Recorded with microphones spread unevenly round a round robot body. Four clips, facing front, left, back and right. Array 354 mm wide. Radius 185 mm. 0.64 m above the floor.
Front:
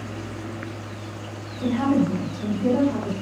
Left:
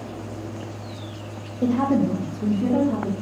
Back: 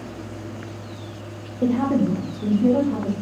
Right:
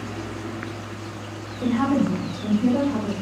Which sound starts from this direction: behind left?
A woman speaking, at 1.6 s.